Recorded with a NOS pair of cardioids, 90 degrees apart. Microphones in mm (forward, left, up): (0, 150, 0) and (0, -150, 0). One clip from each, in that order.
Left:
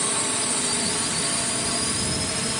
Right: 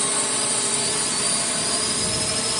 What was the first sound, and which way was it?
A drone, 40° right.